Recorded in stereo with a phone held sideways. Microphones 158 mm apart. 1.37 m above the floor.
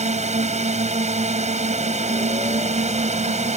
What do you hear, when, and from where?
0.0 s a drone: 45° right (ahead or behind)